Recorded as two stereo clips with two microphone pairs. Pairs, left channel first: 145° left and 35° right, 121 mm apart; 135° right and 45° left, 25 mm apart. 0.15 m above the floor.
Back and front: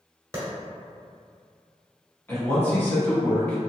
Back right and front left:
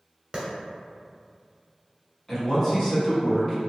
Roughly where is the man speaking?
Behind.